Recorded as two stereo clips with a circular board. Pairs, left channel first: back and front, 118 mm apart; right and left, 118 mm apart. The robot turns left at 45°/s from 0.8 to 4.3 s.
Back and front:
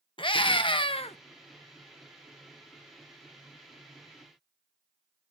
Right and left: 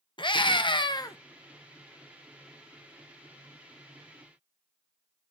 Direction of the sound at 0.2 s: 135° right.